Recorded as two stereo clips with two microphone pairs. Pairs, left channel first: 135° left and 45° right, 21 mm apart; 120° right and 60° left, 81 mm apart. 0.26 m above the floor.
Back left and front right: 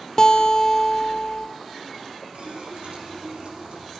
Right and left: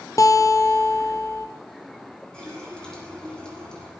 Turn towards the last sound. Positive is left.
turn(degrees=-40)